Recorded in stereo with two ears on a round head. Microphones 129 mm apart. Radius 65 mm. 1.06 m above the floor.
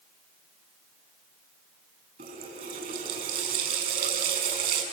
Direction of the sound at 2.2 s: 55° right (ahead or behind).